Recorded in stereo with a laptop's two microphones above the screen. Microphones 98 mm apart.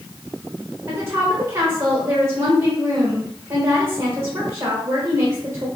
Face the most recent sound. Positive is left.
turn(degrees=-35)  # may be behind; listen again after turning